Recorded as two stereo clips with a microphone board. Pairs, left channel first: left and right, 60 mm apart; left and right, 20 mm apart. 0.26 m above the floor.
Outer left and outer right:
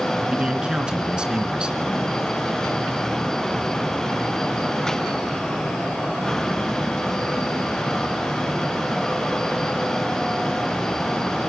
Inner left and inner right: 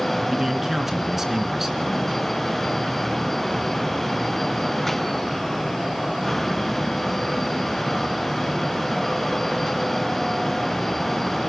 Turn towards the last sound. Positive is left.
turn(degrees=-15)  # may be behind; listen again after turning